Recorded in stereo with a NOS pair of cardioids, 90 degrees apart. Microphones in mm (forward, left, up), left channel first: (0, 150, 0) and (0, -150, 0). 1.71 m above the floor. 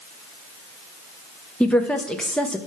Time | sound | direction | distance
1.6 | a woman speaking | 5° left | 0.6 m